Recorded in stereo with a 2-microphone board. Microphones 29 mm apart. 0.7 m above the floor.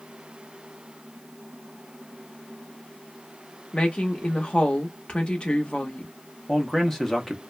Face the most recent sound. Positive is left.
turn(degrees=10)  # may be behind; listen again after turning